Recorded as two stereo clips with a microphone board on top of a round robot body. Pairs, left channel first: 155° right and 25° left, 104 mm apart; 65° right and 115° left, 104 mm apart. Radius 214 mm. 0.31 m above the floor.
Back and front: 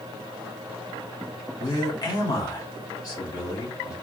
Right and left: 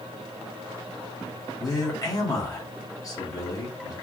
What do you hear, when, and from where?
1.6 s a man speaking: 115° right, 1.6 m